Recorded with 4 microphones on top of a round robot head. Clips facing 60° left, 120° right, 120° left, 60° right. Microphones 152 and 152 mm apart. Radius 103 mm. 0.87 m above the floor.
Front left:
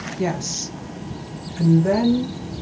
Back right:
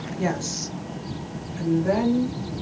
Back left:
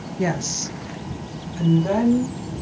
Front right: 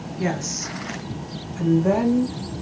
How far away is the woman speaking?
About 0.6 m.